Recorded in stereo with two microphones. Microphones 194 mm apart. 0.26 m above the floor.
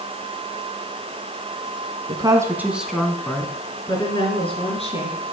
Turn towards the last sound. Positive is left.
turn(degrees=40)  # may be behind; listen again after turning